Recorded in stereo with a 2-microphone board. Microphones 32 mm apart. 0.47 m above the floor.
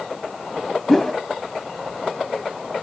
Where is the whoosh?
10° left (ahead or behind), 0.7 m.